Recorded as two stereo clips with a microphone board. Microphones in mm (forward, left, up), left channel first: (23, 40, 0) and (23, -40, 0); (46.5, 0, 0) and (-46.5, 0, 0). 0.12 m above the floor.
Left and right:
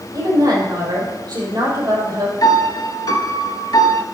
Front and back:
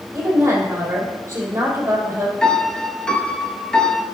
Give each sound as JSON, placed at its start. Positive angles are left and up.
{"t": 0.1, "sound": "a woman speaking", "azimuth_deg": -120, "distance_m": 3.5}
{"t": 2.4, "sound": "a piano", "azimuth_deg": 80, "distance_m": 0.7}